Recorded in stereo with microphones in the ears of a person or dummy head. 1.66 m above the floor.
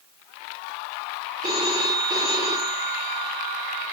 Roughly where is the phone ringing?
Centre.